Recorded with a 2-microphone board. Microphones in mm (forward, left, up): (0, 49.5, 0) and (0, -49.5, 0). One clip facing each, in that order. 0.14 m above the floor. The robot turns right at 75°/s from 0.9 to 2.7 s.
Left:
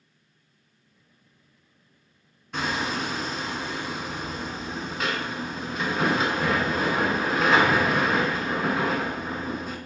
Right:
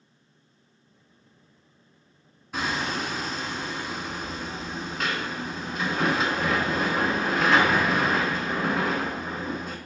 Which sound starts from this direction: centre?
Hammering, at 2.5 s.